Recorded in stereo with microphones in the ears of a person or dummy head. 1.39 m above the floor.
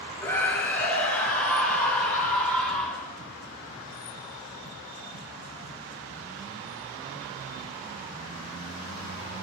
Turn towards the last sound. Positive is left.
turn(degrees=0)  # may be behind; listen again after turning